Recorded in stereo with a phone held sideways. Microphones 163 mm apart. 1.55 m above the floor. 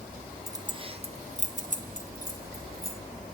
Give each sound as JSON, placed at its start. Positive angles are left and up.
{"t": 0.5, "sound": "keys jangling", "side_deg": -20, "distance_m": 0.6}